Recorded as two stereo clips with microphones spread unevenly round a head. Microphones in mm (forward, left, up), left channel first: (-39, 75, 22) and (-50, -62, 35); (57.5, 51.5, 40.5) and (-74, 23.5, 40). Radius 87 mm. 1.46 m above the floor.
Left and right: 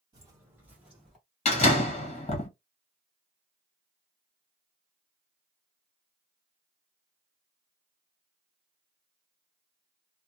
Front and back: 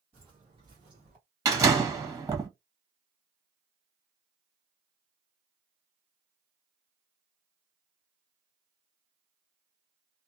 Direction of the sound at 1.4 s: 125° left.